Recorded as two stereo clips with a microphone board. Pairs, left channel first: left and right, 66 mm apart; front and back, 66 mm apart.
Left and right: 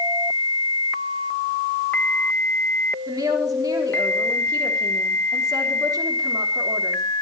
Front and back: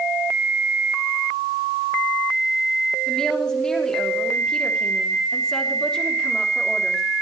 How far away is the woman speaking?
About 3.5 m.